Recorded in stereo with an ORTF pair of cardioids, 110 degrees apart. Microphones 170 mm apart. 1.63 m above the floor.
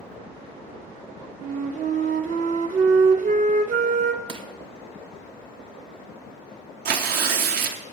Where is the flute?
50° right, 0.8 m.